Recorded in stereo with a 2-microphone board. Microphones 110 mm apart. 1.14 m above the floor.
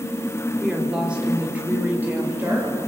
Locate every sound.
0.6 s a woman speaking: 5° right (ahead or behind), 4 m; by 2.8 s 20° right (ahead or behind), 6 m